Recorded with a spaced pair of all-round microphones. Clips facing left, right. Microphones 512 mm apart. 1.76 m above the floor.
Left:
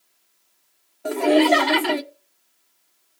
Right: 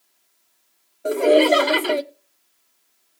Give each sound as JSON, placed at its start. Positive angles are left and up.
{"t": 1.1, "sound": "laughter", "side_deg": 15, "distance_m": 0.6}